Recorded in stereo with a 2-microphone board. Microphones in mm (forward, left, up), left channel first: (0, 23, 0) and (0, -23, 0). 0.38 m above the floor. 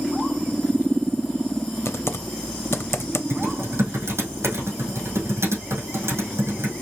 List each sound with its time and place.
1.9 s typing on a keyboard: 70° left (ahead or behind), 0.5 m
3.3 s typing on a keyboard: 70° right (ahead or behind), 3 m